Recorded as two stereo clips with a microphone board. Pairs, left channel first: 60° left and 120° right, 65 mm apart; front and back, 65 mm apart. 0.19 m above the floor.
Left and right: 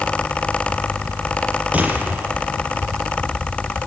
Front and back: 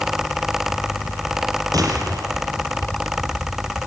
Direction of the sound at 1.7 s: 175° left.